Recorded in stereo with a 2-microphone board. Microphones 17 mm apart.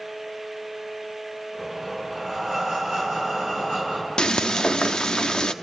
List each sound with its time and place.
1.5 s breathing: centre (ahead or behind), 8 m
4.2 s frying: 55° left (ahead or behind), 0.8 m